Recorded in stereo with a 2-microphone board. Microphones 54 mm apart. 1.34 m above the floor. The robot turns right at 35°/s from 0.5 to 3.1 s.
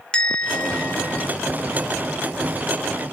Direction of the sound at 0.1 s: 15° left (ahead or behind).